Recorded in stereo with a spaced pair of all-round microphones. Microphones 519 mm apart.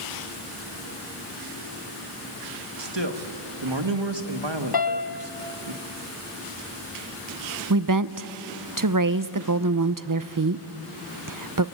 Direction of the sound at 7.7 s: 40° right (ahead or behind).